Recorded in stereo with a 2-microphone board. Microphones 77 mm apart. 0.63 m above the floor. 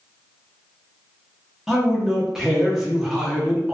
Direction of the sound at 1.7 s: 5° right (ahead or behind).